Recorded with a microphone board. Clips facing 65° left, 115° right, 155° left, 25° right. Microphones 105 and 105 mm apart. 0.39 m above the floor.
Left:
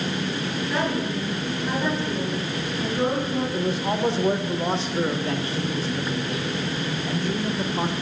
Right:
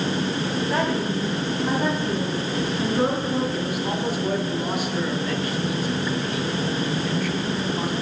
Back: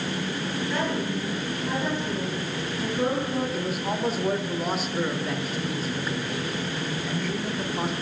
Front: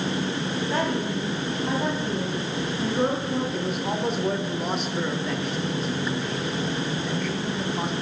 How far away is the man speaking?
About 0.9 m.